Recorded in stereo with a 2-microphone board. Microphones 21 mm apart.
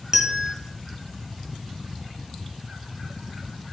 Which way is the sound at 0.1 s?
25° right (ahead or behind).